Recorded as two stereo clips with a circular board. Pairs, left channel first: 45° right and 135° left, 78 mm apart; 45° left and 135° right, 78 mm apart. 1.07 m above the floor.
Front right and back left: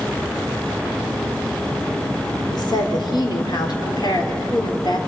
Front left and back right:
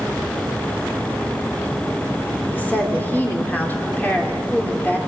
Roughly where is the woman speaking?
Ahead.